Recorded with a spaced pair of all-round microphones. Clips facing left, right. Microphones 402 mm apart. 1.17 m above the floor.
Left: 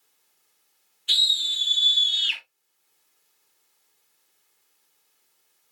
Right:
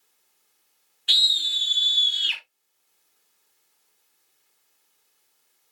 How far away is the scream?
About 2 m.